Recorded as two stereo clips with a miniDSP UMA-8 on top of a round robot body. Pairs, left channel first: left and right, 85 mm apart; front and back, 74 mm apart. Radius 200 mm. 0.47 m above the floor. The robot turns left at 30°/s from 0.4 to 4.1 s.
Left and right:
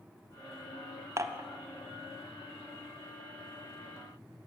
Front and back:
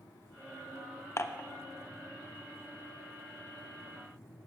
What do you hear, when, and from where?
1.2 s dishes clattering: 45° right, 0.9 m; by 1.5 s 55° right, 0.9 m